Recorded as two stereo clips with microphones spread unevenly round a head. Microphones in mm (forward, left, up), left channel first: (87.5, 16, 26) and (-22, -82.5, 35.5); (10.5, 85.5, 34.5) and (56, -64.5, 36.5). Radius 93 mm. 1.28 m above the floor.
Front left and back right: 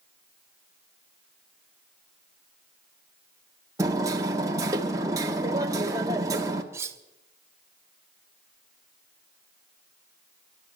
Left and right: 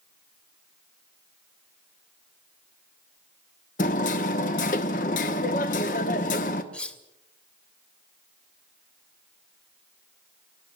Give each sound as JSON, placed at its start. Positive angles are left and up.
{"t": 3.8, "sound": "hammering", "azimuth_deg": 155, "distance_m": 1.2}
{"t": 6.7, "sound": "cutlery clinking", "azimuth_deg": -175, "distance_m": 0.6}